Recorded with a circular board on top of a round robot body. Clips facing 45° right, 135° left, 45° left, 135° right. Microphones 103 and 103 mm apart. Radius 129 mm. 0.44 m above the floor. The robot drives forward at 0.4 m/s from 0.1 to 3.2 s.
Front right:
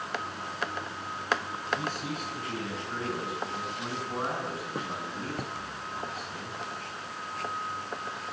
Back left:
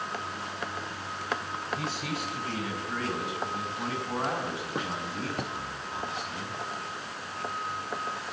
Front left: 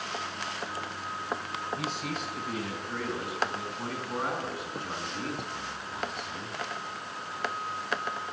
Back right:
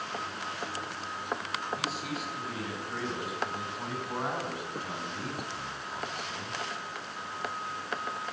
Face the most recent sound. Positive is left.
turn(degrees=145)